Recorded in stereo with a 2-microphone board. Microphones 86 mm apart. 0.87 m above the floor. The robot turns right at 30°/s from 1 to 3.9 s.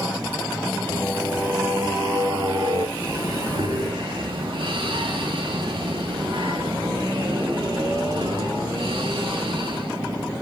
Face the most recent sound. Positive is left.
turn(degrees=-80)